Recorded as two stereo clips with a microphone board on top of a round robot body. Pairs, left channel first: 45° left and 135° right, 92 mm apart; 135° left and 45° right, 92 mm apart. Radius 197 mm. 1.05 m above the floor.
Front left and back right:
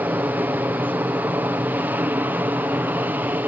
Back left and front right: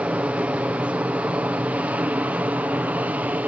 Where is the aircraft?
100° right; by 3.5 s 95° right.